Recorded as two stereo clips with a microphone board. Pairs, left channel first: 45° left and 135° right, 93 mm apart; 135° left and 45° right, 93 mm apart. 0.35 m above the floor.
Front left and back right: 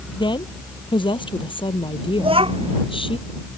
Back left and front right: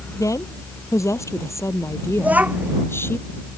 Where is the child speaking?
120° right.